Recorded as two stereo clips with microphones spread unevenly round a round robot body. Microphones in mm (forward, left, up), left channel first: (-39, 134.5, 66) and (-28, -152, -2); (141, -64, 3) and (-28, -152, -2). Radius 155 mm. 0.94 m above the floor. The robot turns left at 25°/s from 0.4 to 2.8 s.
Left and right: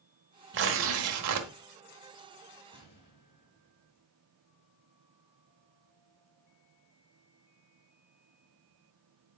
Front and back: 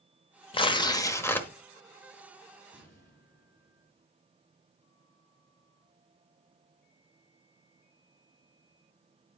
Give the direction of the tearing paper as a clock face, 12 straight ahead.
1 o'clock.